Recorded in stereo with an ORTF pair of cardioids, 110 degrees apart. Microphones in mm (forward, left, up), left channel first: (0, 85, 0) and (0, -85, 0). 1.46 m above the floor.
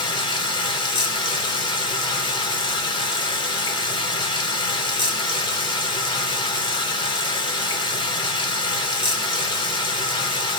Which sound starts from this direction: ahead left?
Running water, at 0.0 s.